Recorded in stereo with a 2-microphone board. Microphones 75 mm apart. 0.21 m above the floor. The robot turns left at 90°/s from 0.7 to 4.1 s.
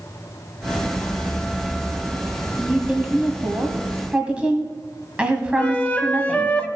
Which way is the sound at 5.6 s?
20° left (ahead or behind).